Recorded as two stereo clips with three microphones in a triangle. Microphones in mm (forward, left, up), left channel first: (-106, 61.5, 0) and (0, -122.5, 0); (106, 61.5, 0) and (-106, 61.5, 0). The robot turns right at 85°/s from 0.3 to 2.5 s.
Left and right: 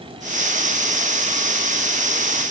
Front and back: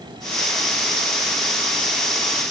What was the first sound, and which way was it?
Only background noise.